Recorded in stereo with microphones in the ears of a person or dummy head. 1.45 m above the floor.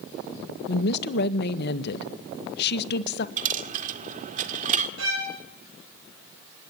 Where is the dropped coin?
45° right (ahead or behind), 1.9 m.